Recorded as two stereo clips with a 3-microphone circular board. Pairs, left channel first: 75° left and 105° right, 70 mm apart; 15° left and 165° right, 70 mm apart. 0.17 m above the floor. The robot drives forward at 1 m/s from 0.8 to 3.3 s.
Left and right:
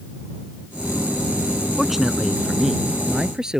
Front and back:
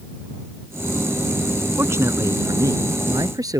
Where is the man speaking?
170° left; by 3.6 s 175° left.